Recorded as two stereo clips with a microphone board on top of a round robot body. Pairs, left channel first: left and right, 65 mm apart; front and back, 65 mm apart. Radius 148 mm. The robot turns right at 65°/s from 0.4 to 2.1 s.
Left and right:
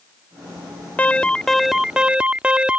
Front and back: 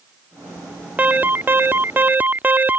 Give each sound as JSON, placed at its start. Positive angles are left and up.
{"t": 1.0, "sound": "an alarm", "azimuth_deg": 135}